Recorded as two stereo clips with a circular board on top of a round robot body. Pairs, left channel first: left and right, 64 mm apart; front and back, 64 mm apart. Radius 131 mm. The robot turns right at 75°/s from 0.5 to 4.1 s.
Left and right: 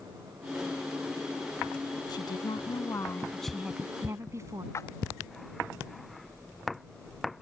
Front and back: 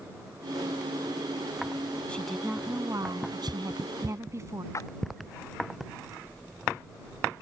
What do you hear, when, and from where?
2.1 s a woman speaking: 75° left; by 4.6 s 135° right
4.7 s a splash: 45° left